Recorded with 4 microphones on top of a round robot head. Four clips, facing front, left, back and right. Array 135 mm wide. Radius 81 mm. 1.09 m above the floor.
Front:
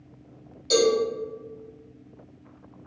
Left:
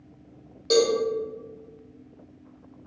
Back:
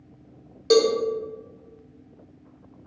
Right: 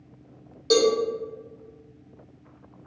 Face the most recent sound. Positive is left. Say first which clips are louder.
# right 1 dB, back 3 dB
turn(degrees=-170)